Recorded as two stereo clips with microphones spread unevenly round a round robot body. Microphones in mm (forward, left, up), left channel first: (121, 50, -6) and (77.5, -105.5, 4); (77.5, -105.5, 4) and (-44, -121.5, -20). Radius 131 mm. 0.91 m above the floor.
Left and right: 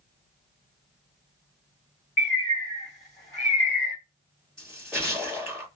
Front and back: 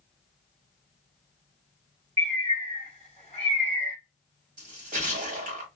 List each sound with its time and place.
2.2 s a bird: 125° left, 1.1 m
4.6 s a splash: 165° left, 1.3 m